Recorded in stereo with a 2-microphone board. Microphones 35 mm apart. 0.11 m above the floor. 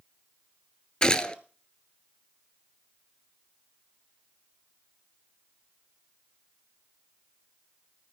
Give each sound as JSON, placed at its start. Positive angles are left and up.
{"t": 1.0, "sound": "a gunshot", "side_deg": 20, "distance_m": 0.7}